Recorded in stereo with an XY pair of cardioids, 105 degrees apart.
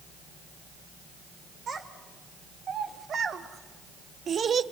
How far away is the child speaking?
About 2.5 m.